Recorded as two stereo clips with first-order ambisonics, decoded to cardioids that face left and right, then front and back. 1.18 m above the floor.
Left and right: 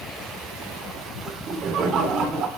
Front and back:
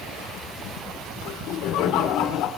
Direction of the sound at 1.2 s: 30° right.